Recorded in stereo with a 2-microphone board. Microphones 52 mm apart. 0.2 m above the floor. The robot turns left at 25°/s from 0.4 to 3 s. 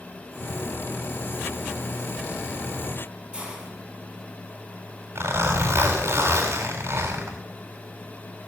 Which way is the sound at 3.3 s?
15° right (ahead or behind).